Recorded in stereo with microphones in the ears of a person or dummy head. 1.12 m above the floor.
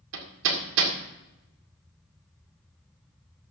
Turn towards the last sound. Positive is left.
turn(degrees=-70)  # may be behind; listen again after turning